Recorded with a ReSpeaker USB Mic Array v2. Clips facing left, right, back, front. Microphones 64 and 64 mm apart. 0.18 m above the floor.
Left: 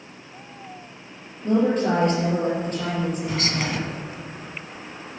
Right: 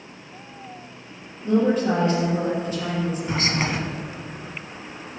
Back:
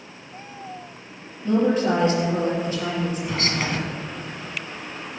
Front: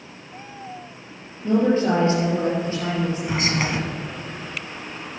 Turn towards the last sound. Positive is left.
turn(degrees=-60)